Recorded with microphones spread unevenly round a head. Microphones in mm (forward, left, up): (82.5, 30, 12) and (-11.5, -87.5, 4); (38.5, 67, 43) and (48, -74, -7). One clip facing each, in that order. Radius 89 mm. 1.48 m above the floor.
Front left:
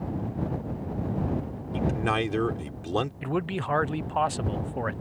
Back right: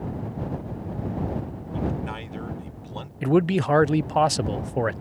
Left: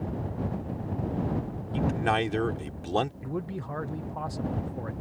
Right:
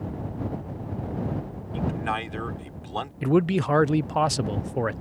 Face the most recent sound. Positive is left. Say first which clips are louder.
# back right 9 dB, right 13 dB
turn(degrees=-80)